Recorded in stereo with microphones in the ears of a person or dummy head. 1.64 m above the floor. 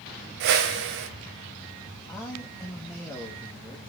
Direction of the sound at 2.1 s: 10° left (ahead or behind).